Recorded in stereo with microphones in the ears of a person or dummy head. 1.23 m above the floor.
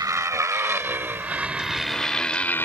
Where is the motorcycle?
25° right (ahead or behind); by 2.7 s 5° left (ahead or behind).